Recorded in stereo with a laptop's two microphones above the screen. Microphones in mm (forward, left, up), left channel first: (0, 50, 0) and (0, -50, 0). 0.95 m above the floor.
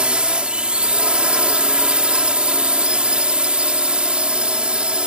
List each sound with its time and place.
0.0 s a drone: 10° right (ahead or behind)